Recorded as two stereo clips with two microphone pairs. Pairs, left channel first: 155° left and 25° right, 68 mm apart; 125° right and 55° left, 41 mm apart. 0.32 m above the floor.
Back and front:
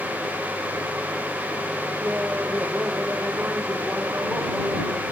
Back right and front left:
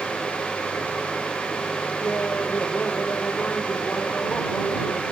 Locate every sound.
2.0 s laughter: 90° right; by 5.0 s 80° right